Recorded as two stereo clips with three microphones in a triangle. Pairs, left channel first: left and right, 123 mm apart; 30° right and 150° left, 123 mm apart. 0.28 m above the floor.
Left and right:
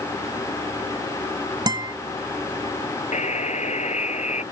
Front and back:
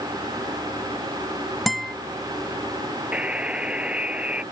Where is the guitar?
120° right.